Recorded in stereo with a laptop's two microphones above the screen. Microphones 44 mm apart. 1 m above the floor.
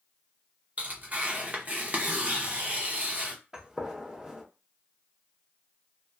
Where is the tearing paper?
30° right (ahead or behind), 0.7 m.